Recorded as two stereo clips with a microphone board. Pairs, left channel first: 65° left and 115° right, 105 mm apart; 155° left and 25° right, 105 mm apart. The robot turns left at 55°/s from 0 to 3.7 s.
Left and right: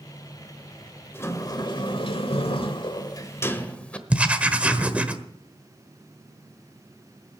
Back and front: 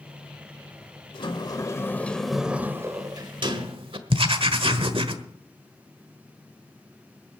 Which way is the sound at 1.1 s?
130° left.